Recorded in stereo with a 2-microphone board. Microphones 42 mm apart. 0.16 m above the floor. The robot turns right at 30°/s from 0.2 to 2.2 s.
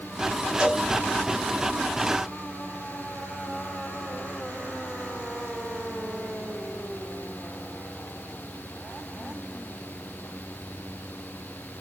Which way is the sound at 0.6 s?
30° right (ahead or behind).